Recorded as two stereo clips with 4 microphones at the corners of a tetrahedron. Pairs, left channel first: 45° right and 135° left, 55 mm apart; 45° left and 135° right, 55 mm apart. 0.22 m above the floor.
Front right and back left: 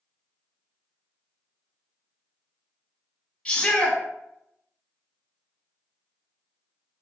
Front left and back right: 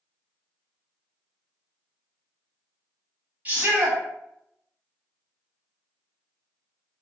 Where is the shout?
105° right, 1.5 m.